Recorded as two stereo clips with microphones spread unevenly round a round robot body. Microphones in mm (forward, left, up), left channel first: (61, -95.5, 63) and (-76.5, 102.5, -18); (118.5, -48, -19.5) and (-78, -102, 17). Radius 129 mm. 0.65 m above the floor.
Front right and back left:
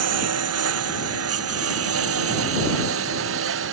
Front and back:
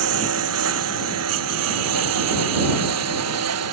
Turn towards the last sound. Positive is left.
turn(degrees=165)